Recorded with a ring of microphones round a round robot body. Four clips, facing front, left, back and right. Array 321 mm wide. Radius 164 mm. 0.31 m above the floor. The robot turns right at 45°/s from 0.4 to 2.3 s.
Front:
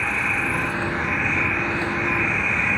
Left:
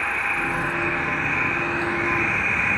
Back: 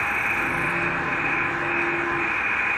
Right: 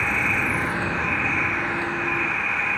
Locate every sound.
0.0 s an insect: 65° right; by 2.8 s 20° left